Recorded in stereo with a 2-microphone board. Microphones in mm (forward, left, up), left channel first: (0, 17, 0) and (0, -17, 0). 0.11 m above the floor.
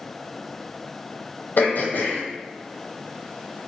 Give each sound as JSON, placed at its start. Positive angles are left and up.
{"t": 1.6, "sound": "throat clearing", "side_deg": 75, "distance_m": 0.7}